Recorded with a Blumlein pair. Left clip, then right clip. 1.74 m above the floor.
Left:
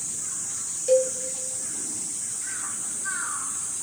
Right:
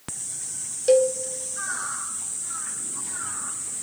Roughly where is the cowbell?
Ahead right.